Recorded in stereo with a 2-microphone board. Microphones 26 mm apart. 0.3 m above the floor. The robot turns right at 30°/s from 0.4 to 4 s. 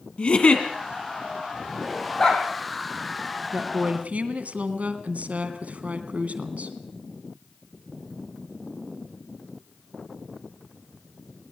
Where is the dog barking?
30° left (ahead or behind), 3.5 m; by 2.5 s 35° left (ahead or behind), 3.5 m.